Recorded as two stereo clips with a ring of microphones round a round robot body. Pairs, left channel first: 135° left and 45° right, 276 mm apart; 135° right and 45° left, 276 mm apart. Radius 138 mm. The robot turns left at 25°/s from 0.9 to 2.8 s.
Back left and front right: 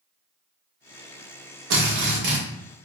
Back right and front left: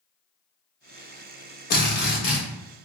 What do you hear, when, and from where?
1.7 s a drill: 80° right, 1.2 m; by 2.4 s 95° right, 1.2 m